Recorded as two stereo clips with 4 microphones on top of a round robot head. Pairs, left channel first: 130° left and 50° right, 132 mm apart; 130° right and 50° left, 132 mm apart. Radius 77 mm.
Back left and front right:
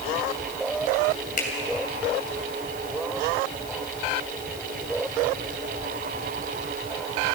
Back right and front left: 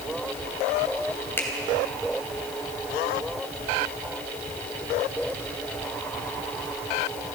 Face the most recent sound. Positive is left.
turn(degrees=155)